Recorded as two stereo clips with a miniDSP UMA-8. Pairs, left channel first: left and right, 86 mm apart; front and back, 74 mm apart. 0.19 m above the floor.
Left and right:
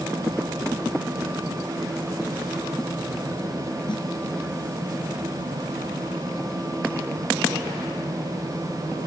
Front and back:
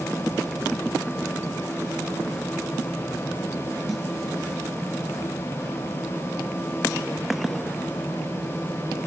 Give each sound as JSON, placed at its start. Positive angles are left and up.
{"t": 3.9, "sound": "a snare drum", "azimuth_deg": 90, "distance_m": 2.0}